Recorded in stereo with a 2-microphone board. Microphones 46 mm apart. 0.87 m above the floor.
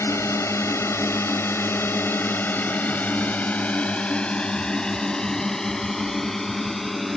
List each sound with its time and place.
0.0 s a drone: 75° left (ahead or behind); by 7.2 s 5° left (ahead or behind)